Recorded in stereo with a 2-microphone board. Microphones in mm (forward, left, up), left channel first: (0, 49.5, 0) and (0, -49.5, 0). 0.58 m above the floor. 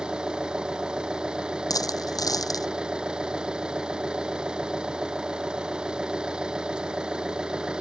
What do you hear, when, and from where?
0.0 s an engine running: 10° right (ahead or behind)
1.7 s a dropped coin: 40° left (ahead or behind)